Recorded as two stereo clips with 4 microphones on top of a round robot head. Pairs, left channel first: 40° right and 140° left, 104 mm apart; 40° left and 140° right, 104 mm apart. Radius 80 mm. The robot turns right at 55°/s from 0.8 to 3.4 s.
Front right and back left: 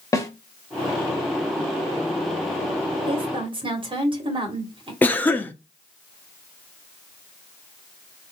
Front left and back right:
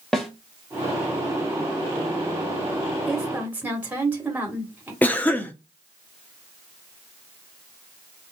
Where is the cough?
5° right, 0.7 m.